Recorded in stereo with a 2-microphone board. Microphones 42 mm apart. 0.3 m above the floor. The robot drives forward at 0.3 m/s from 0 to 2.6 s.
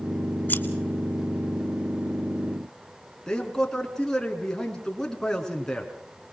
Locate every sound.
0.5 s scissors: 40° left (ahead or behind), 2.5 m
3.3 s a man speaking: 15° left (ahead or behind), 3.5 m